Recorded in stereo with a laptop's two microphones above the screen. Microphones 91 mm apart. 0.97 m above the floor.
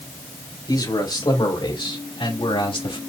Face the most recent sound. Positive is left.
turn(degrees=80)